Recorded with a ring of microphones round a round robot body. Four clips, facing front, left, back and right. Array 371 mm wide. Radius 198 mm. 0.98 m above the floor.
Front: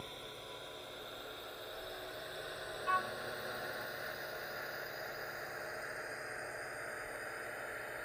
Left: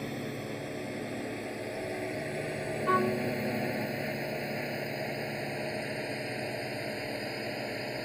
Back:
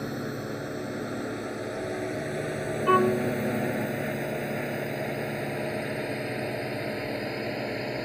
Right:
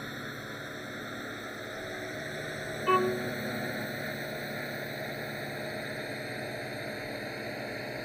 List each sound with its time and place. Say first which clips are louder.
0.0 s a drone: left 4 dB, back 17 dB; 165° left; by 8.1 s 175° left
2.9 s a violin: right 1 dB, back 15 dB; 170° right